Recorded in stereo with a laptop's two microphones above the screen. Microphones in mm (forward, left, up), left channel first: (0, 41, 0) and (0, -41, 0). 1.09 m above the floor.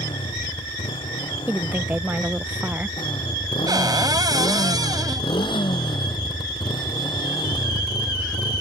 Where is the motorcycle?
90° left; by 8.6 s 50° left (ahead or behind).